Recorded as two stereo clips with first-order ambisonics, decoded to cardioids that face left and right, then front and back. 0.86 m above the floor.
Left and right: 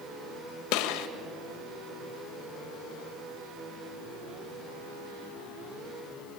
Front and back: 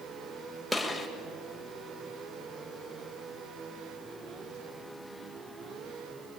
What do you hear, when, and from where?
0.7 s a gunshot: 90° left, 1.5 m